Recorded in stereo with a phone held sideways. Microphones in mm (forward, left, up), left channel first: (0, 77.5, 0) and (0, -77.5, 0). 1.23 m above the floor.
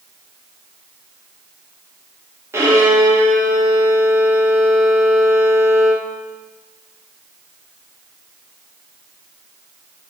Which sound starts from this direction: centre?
A violin, at 2.5 s.